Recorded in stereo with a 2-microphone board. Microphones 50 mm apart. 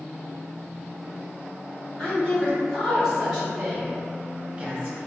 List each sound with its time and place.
2.0 s a woman speaking: 10° left (ahead or behind), 2.0 m; by 5.0 s 25° right (ahead or behind), 1.6 m